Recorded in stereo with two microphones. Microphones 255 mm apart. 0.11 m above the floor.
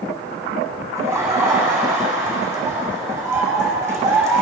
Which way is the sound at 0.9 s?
10° right (ahead or behind).